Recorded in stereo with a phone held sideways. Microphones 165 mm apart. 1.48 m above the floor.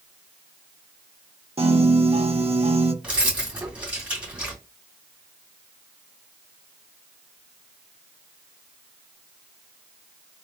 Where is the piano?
40° right (ahead or behind), 0.6 m.